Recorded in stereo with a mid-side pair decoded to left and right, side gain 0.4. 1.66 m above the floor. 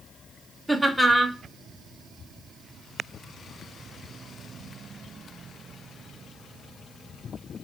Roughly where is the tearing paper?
No tearing paper in this recording.